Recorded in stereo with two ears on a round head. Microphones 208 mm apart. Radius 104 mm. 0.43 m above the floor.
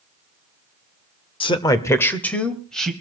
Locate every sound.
1.4 s a man speaking: 20° left (ahead or behind), 0.9 m; by 2.9 s centre (ahead or behind), 2 m